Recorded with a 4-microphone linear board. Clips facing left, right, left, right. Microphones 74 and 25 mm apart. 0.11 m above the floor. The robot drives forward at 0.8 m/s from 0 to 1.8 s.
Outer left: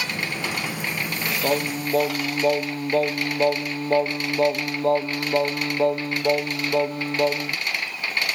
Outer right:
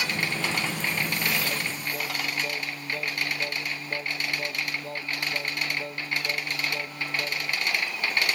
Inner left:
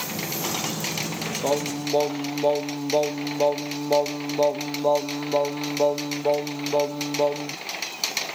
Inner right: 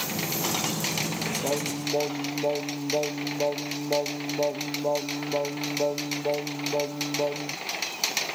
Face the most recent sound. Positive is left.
turn(degrees=65)  # may be behind; listen again after turning